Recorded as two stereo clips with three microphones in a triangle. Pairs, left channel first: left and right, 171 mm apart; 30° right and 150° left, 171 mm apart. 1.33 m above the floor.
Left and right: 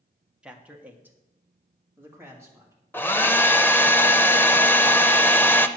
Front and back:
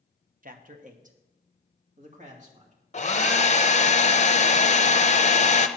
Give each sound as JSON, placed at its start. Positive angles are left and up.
{"t": 0.4, "sound": "a man speaking", "azimuth_deg": -175, "distance_m": 1.0}
{"t": 2.9, "sound": "a hair dryer", "azimuth_deg": 10, "distance_m": 0.6}